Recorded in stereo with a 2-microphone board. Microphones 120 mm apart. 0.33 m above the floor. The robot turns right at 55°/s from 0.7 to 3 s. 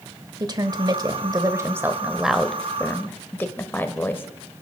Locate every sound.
0.4 s a woman speaking: 95° right, 1.2 m; by 4.2 s 30° left, 1.2 m